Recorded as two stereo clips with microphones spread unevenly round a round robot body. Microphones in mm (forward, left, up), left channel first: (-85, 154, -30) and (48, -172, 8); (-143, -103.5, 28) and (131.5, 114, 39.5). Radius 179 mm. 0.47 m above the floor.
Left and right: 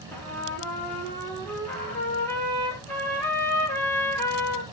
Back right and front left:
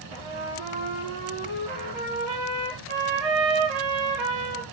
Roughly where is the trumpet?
Ahead left.